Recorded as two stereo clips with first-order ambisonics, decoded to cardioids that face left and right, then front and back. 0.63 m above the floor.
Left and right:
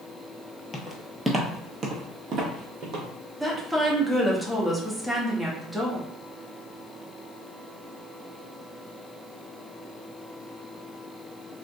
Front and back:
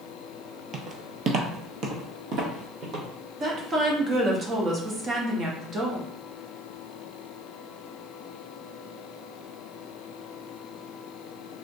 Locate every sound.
0.7 s footsteps: 140° left, 0.7 m; by 3.1 s 135° right, 1.5 m
3.4 s a woman speaking: 170° right, 0.6 m